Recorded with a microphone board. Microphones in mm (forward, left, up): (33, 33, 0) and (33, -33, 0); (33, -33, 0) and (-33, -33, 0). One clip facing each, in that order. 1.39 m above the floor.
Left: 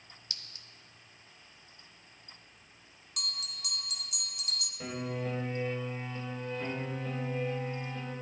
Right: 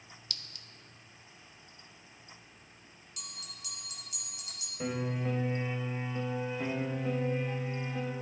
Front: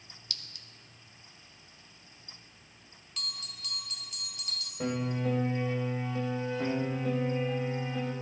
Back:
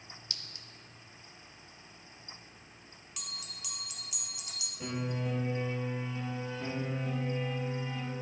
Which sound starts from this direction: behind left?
A clink, at 0.3 s.